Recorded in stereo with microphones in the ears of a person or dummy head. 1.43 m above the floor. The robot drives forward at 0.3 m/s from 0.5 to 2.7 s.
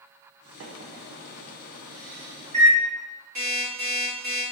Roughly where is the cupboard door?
No cupboard door in this recording.